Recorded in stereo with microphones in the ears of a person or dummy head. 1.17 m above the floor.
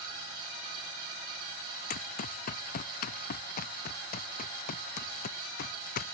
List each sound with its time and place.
1.9 s running footsteps: 50° left (ahead or behind)